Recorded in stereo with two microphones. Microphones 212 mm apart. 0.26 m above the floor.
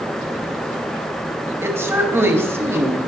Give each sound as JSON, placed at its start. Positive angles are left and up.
{"t": 1.6, "sound": "a woman speaking", "side_deg": -10, "distance_m": 1.1}